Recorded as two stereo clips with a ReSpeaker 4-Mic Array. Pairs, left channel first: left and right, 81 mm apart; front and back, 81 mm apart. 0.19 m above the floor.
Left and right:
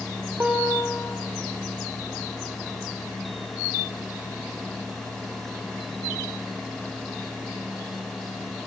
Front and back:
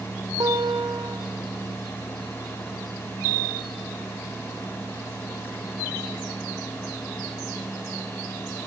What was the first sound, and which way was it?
A guitar, 155° right.